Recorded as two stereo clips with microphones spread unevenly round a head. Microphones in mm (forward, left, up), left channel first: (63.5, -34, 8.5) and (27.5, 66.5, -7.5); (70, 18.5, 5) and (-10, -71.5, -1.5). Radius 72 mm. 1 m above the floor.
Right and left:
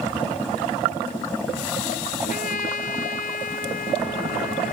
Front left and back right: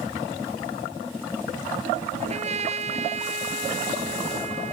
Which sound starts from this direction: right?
A trumpet, at 2.2 s.